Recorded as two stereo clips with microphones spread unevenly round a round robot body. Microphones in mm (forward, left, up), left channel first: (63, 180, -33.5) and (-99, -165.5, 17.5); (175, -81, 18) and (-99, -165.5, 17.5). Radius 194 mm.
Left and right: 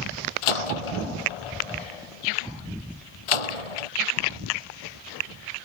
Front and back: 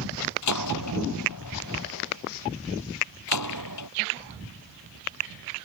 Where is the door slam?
65° left.